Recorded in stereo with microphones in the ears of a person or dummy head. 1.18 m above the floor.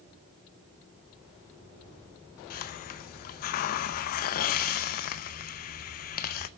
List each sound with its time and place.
2.5 s a hiss: 50° left (ahead or behind), 0.7 m